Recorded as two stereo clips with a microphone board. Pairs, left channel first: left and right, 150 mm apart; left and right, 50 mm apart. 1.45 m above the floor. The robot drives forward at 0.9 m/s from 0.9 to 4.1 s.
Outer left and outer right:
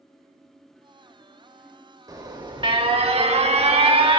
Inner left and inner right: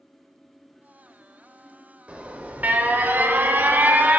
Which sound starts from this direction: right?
An alarm, at 2.1 s.